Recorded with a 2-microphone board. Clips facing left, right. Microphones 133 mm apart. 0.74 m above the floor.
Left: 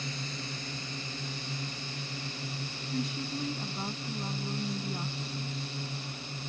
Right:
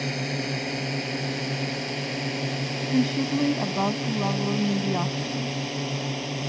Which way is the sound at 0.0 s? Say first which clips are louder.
Right 11 dB; 70° right (ahead or behind).